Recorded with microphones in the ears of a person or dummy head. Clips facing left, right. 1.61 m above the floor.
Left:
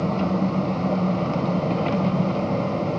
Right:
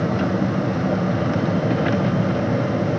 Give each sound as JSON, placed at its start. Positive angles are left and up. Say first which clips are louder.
{"t": 0.0, "sound": "an engine running", "louder": "right 2 dB", "side_deg": -15, "distance_m": 0.9}